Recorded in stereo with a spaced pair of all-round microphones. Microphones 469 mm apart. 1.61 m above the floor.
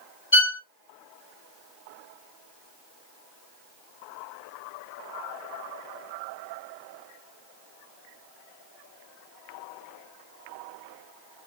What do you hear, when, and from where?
0.3 s a violin: 65° left (ahead or behind), 1.3 m